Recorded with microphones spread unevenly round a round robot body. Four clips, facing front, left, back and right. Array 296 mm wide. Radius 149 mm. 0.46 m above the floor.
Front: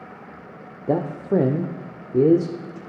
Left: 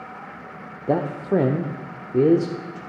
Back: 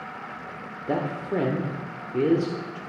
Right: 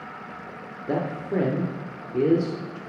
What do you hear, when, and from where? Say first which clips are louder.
0.9 s a man speaking: left 5 dB, front 5 dB; 30° left, 0.9 m